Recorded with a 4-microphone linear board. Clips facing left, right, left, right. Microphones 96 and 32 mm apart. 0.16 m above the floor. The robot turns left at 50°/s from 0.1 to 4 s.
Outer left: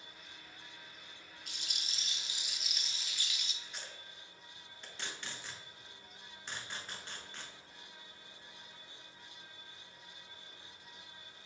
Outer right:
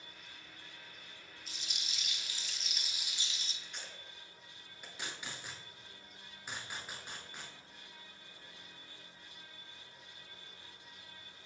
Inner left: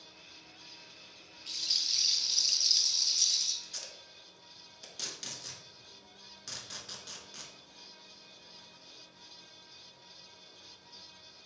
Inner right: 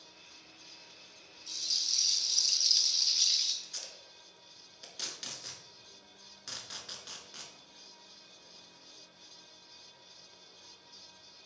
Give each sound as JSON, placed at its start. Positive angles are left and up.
{"t": 1.5, "sound": "a rattle", "azimuth_deg": 65, "distance_m": 0.6}
{"t": 3.6, "sound": "tape being pulled", "side_deg": 5, "distance_m": 0.9}